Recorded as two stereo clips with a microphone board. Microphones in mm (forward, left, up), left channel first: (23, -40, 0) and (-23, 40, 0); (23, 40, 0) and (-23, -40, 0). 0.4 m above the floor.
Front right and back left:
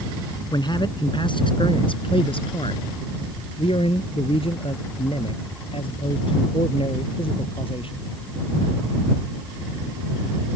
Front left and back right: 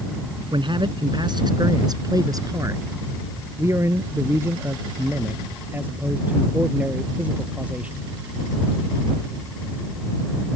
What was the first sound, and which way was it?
A man speaking, 95° right.